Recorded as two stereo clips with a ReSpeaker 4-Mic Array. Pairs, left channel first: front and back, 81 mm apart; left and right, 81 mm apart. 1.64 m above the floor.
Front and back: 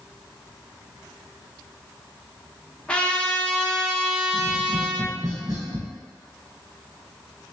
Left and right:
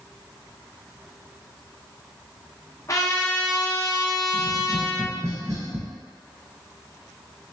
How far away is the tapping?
About 1.2 m.